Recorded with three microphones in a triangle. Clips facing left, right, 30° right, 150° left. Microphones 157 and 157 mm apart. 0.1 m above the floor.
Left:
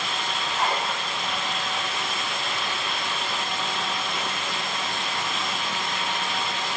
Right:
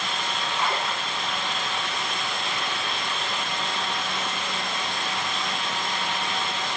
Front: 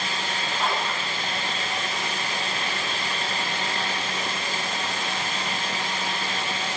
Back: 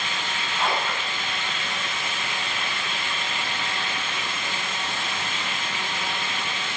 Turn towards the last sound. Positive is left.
turn(degrees=130)